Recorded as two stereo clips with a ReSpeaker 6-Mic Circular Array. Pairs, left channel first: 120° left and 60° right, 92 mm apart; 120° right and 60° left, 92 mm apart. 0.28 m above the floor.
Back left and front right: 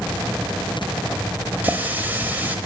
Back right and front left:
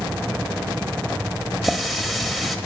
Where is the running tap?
30° right, 0.8 m.